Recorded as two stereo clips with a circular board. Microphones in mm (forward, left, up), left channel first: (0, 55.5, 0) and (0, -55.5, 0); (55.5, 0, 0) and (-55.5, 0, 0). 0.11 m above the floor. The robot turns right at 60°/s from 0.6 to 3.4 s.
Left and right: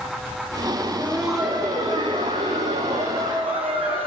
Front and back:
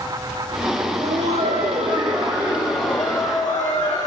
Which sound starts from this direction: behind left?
Laughter, at 0.8 s.